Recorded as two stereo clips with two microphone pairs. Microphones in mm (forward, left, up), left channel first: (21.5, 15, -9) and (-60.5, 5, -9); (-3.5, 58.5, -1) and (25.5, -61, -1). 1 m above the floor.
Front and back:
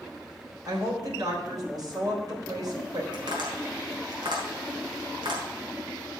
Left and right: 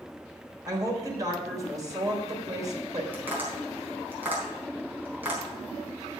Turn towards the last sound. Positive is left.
turn(degrees=-150)